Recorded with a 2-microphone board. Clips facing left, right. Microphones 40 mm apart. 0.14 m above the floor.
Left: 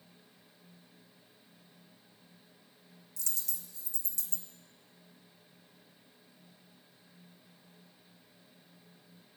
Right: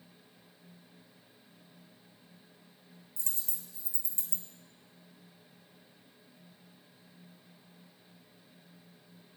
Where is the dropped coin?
25° right (ahead or behind), 1.3 m.